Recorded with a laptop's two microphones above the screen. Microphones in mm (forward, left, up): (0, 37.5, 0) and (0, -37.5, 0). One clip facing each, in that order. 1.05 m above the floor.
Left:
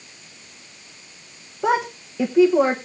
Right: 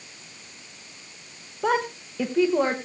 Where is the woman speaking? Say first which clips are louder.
Left 3 dB; 10° left (ahead or behind), 1.3 m.